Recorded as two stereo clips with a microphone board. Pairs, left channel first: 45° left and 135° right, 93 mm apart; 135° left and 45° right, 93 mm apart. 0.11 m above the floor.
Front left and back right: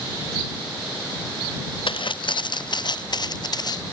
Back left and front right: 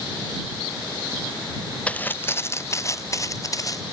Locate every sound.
1.9 s footsteps: 60° left; by 3.8 s 85° left